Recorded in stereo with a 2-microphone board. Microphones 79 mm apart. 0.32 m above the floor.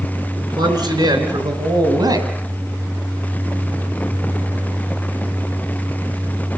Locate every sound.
0.4 s a man speaking: 70° right (ahead or behind), 5 m; by 2.3 s 50° right (ahead or behind), 3.5 m